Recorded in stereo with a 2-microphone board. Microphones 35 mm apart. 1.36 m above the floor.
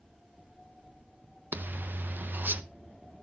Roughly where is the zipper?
Right.